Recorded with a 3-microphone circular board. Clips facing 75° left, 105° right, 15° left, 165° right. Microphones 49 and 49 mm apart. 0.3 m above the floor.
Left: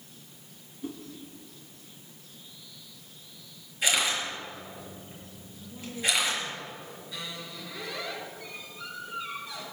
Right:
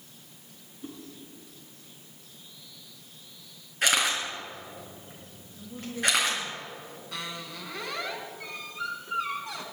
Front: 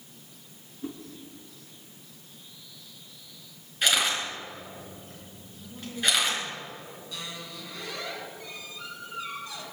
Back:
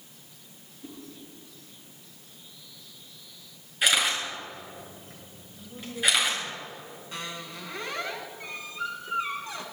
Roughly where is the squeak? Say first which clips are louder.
Right 3 dB, back 3 dB; behind right.